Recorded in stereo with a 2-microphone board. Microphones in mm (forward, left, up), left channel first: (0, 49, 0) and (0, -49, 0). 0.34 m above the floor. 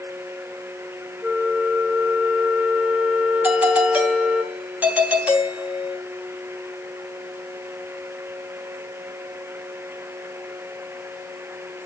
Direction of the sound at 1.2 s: 5° right (ahead or behind).